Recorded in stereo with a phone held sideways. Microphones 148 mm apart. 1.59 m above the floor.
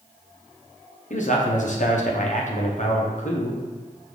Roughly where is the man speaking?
Left.